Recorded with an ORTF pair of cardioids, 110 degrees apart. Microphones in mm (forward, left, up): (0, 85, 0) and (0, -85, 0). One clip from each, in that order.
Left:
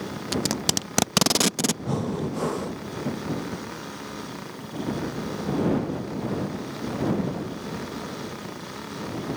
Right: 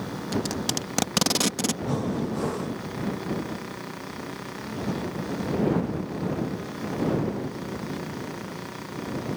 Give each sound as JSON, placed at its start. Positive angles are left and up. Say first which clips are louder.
{"t": 0.3, "sound": "tape being pulled", "louder": "left 3 dB", "azimuth_deg": 35}
{"t": 1.9, "sound": "breathing", "louder": "even", "azimuth_deg": 25}